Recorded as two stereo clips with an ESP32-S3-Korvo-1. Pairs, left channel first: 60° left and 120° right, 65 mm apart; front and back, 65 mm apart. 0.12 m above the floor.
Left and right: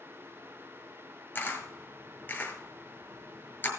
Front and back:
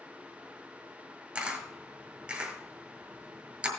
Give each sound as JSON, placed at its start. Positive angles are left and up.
{"t": 1.4, "sound": "a camera shutter", "azimuth_deg": 115, "distance_m": 2.5}